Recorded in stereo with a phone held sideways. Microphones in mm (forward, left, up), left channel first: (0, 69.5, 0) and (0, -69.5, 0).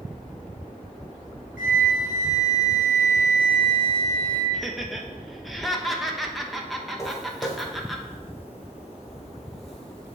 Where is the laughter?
Centre (ahead or behind), 0.8 m.